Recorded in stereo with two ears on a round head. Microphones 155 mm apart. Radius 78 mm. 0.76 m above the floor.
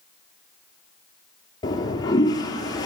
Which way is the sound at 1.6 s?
25° left (ahead or behind).